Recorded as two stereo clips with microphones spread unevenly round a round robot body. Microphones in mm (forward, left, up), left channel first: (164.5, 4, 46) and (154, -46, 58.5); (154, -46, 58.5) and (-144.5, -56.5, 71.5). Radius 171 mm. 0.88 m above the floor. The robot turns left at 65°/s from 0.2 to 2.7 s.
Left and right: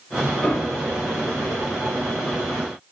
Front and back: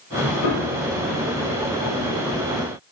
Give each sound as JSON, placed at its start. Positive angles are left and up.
{"t": 0.4, "sound": "a piano", "azimuth_deg": 20, "distance_m": 1.7}